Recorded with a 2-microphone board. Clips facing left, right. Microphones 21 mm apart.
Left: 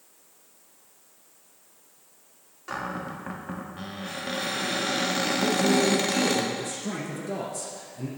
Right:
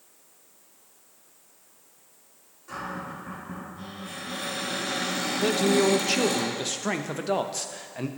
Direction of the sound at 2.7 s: 40° left (ahead or behind).